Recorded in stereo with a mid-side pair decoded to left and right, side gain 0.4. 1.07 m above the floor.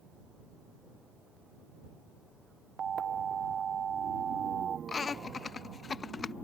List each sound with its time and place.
2.8 s an alarm: 55° right
4.9 s laughter: 45° left